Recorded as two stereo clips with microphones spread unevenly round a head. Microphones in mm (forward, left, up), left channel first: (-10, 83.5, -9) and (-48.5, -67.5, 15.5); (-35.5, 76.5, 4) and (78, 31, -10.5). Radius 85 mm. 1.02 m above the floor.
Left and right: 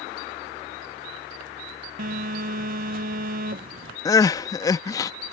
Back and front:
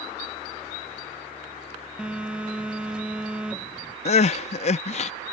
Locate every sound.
2.0 s a phone buzzing: 95° right
4.0 s crying: 150° left